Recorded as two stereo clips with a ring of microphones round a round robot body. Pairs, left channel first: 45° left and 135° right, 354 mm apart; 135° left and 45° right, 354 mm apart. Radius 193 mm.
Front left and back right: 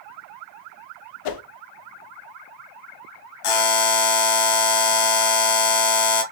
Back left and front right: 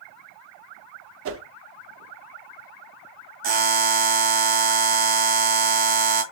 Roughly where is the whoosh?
Ahead.